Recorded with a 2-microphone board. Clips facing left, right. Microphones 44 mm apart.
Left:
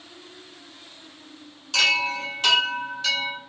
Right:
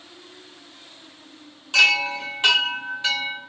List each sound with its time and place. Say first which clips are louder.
1.7 s a chime: right 3 dB; 20° right (ahead or behind), 0.9 m